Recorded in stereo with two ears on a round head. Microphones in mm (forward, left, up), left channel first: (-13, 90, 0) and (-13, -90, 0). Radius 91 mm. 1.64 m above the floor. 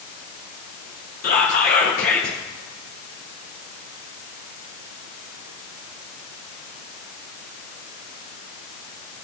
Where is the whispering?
40° left (ahead or behind), 0.9 m.